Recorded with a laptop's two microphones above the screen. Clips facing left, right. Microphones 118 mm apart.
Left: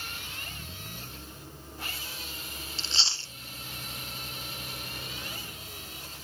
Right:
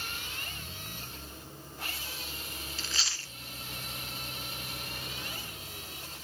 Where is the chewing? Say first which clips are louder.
Left 3 dB; 30° left (ahead or behind), 0.5 m.